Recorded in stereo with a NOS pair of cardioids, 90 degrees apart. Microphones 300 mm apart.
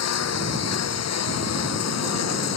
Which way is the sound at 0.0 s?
55° left.